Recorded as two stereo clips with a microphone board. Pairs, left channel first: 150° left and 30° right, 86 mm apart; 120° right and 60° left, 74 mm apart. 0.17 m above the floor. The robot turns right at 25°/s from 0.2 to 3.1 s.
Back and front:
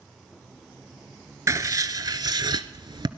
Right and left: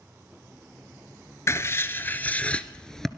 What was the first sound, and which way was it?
Writing, 75° right.